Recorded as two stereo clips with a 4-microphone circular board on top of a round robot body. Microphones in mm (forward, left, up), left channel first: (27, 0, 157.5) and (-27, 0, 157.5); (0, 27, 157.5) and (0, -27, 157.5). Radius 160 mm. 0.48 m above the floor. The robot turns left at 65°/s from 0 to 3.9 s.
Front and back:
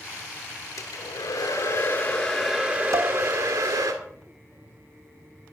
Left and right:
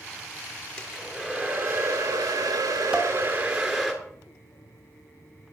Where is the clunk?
No clunk in this recording.